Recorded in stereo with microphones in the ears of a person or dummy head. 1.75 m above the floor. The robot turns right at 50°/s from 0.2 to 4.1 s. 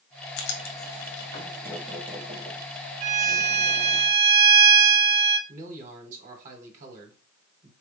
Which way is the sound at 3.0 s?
120° right.